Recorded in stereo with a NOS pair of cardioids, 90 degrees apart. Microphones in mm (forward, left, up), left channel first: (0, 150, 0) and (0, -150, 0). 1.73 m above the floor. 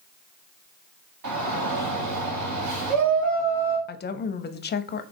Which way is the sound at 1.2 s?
65° right.